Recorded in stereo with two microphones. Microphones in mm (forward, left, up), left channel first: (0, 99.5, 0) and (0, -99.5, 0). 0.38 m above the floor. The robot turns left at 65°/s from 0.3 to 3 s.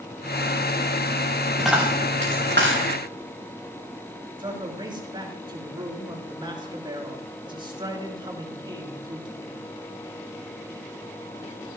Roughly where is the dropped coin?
Centre.